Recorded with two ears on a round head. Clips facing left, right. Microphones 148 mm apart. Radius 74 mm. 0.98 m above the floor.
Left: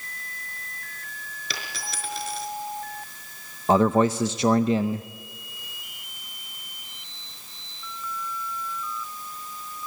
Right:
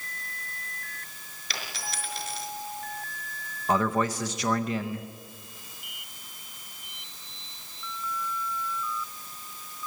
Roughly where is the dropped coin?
Left.